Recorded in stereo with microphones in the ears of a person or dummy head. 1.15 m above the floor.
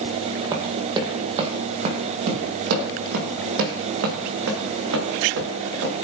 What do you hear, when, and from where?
0.5 s running footsteps: 25° right (ahead or behind), 2.5 m; by 5.9 s 75° right (ahead or behind), 5 m